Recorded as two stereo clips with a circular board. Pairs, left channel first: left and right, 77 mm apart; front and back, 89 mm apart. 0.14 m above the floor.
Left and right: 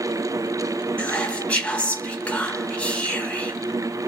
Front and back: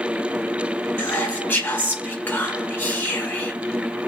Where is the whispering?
35° left, 1.8 m.